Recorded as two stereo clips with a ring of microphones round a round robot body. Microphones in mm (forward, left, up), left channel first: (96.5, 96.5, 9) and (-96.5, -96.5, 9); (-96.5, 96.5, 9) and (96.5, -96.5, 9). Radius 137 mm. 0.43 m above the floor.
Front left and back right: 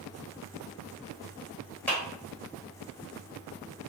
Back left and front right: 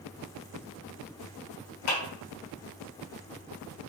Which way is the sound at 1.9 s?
125° left.